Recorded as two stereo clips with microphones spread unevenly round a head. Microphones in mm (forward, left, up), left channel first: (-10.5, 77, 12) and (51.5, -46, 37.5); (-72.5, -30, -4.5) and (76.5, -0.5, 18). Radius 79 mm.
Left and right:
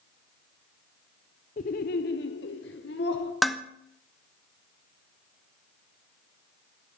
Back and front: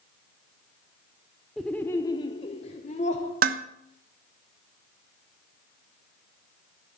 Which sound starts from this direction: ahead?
Dishes clattering, at 3.4 s.